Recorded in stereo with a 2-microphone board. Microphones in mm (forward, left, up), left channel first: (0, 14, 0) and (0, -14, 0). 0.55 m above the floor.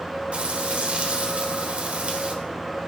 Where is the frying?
50° right (ahead or behind), 2.0 m.